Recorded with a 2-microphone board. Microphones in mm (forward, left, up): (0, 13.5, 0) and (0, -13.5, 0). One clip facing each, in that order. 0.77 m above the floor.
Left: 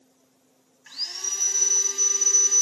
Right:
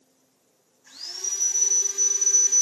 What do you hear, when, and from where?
0.9 s sawing: 70° left (ahead or behind), 2 m